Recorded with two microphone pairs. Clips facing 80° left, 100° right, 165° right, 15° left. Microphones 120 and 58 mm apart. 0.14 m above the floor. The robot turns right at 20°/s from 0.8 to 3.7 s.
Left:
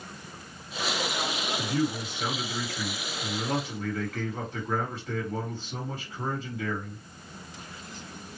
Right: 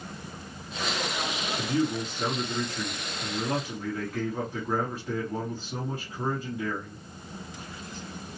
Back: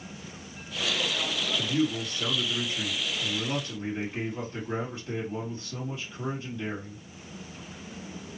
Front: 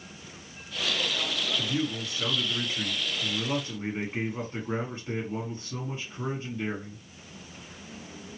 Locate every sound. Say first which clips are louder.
1.6 s a man speaking: right 2 dB, back 3 dB; 60° right, 2.5 m; by 7.0 s 15° right, 2.5 m